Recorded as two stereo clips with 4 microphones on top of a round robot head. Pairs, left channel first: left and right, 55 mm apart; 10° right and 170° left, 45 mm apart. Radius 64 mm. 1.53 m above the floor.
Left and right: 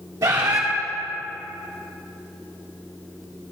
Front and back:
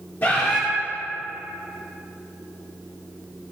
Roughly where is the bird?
Ahead right.